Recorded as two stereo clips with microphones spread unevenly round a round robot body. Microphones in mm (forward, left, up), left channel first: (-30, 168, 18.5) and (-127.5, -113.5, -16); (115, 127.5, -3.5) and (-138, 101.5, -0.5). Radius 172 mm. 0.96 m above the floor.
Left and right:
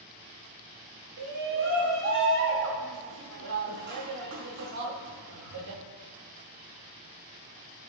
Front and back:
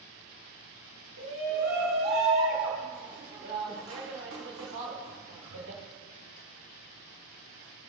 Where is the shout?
125° right, 1.8 m.